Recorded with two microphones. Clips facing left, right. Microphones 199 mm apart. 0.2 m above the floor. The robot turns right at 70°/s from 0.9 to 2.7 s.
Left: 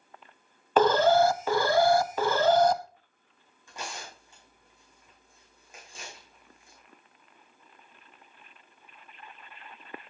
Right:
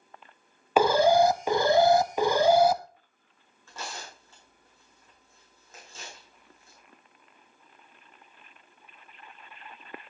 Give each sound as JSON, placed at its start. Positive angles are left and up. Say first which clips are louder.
{"t": 0.8, "sound": "an alarm", "louder": "right 1 dB", "side_deg": -10, "distance_m": 0.6}
{"t": 3.7, "sound": "tearing paper", "louder": "even", "side_deg": 15, "distance_m": 6.5}